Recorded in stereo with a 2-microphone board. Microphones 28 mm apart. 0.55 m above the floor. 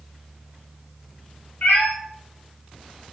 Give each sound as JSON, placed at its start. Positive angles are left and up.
{"t": 1.6, "sound": "a cat meowing", "side_deg": 75, "distance_m": 1.1}